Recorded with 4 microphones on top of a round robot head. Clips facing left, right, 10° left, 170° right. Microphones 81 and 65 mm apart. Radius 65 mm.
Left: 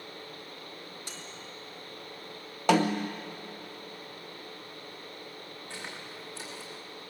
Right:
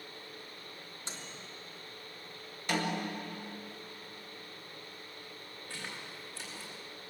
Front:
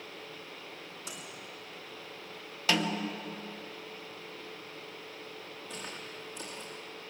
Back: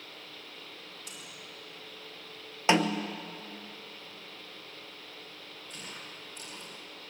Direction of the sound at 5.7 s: 20° left.